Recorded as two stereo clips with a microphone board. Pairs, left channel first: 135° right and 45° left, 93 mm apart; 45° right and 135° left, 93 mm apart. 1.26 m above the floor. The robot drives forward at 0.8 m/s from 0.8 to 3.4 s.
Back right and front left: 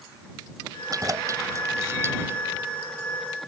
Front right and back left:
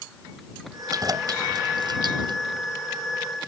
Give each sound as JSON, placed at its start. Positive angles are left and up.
{"t": 0.9, "sound": "keys jangling", "azimuth_deg": 90}